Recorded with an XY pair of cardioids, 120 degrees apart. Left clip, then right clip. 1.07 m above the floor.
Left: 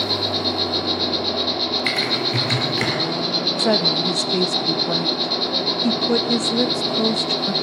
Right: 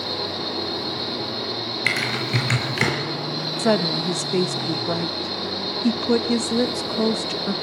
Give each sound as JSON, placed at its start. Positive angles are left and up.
{"t": 0.0, "sound": "an insect", "azimuth_deg": 60, "distance_m": 9.5}
{"t": 1.9, "sound": "typing on a keyboard", "azimuth_deg": -20, "distance_m": 6.0}
{"t": 3.6, "sound": "a woman speaking", "azimuth_deg": -5, "distance_m": 0.9}